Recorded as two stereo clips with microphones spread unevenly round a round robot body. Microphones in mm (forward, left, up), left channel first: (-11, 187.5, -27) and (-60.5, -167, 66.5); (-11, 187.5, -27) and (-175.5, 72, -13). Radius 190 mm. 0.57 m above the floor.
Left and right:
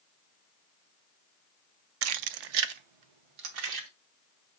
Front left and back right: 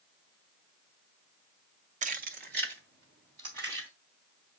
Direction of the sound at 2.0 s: 150° right.